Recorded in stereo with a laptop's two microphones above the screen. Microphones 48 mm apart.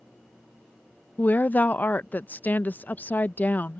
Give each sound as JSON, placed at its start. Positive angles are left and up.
{"t": 1.2, "sound": "a woman speaking", "side_deg": 40}